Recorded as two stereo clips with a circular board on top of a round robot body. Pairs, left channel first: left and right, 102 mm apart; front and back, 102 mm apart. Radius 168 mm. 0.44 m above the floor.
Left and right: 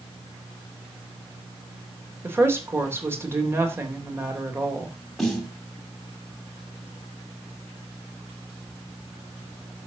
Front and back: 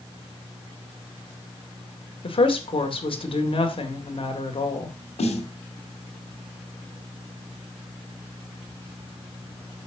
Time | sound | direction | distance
2.2 | a woman speaking | 25° right | 3 m
5.2 | a snare drum | 5° left | 2 m